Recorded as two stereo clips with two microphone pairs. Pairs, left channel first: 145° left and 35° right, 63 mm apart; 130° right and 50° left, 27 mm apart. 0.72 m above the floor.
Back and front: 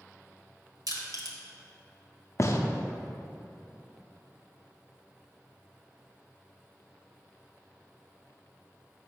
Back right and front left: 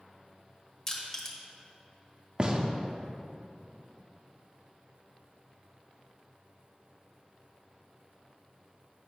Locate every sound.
0.9 s crushing: 60° right, 1.1 m
2.4 s a gunshot: 110° left, 0.5 m